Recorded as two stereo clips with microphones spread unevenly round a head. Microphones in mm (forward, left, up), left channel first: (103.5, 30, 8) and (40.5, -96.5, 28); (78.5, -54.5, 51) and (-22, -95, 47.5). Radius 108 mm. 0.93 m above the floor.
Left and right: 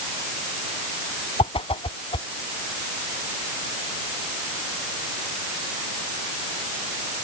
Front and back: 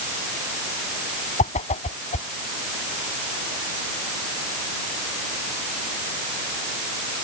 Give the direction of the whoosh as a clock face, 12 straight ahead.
12 o'clock.